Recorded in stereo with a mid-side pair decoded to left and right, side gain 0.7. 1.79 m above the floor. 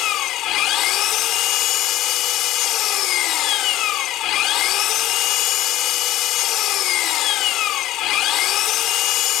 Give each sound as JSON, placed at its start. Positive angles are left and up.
{"t": 0.0, "sound": "an engine running", "azimuth_deg": 55}